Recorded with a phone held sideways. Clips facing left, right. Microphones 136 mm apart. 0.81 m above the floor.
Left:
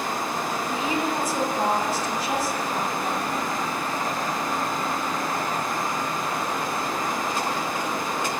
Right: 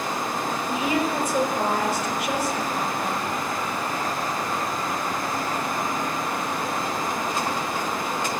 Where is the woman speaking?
70° right (ahead or behind), 4.5 m.